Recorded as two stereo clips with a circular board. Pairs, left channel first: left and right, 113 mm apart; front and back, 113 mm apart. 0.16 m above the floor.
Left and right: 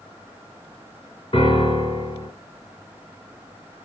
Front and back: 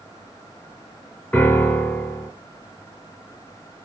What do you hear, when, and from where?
1.3 s a piano: 75° left, 3 m